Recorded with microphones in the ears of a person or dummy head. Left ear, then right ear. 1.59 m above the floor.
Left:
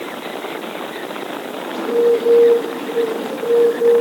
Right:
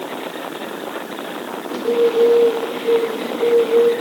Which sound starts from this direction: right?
A bird, at 1.7 s.